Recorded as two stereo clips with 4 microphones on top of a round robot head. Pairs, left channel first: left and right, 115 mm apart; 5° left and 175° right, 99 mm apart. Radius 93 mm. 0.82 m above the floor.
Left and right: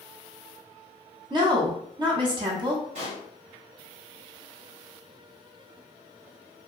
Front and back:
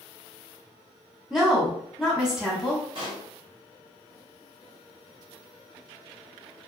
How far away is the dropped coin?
I don't hear a dropped coin.